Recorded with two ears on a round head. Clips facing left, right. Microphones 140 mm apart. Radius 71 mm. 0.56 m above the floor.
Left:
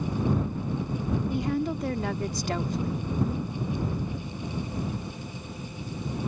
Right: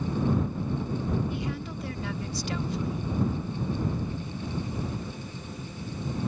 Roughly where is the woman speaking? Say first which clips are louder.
Left 6 dB; left.